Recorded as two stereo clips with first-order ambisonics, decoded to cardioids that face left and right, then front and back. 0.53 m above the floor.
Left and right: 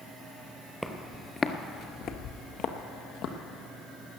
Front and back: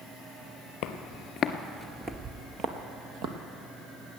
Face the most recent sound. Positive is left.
turn(degrees=135)